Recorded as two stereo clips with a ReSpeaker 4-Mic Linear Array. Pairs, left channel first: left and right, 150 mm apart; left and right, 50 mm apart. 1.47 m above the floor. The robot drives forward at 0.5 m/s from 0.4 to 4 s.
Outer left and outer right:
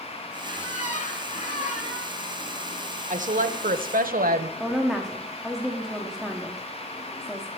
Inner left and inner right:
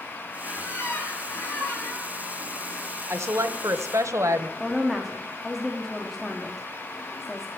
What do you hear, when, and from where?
0.4 s a squeak: 55° left (ahead or behind), 3 m; by 2.1 s 45° left (ahead or behind), 3.5 m
3.1 s a woman speaking: 55° right (ahead or behind), 0.9 m; by 4.5 s 70° right (ahead or behind), 0.8 m
4.6 s a woman speaking: centre (ahead or behind), 1.0 m